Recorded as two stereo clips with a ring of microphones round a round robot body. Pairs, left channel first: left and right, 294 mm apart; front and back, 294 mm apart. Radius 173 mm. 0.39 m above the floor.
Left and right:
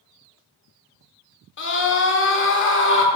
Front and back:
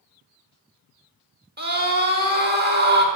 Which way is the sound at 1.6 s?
130° left.